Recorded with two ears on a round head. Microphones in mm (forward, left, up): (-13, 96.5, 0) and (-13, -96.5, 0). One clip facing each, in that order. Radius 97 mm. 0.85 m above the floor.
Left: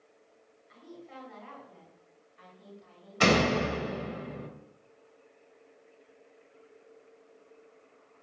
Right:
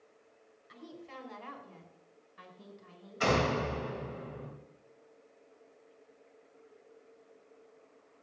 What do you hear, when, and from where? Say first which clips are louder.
0.7 s a woman speaking: even; 65° right (ahead or behind), 5 m
3.2 s a door slam: left 5 dB; 75° left (ahead or behind), 3 m